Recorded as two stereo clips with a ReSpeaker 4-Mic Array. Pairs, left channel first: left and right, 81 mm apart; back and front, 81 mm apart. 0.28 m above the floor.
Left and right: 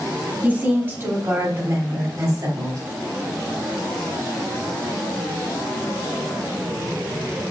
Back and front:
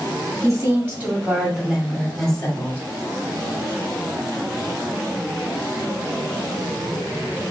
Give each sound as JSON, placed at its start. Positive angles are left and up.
{"t": 0.4, "sound": "a woman speaking", "azimuth_deg": -35, "distance_m": 1.6}